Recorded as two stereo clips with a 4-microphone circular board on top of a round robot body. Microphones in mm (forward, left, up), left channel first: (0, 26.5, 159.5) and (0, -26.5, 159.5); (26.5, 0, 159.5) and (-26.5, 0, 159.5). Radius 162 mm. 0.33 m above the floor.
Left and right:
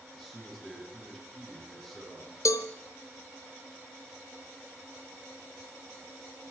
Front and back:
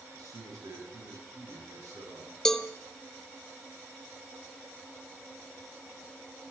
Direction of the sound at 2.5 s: 80° left.